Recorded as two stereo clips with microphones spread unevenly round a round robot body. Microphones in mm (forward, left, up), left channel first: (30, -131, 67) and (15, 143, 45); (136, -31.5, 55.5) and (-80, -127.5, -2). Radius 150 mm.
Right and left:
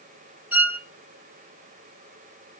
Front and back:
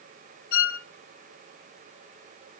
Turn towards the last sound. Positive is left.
turn(degrees=15)